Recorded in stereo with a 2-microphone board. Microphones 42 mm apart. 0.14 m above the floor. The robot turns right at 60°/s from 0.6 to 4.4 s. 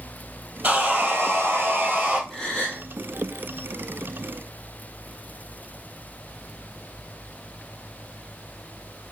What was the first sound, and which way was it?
Sawing, 135° right.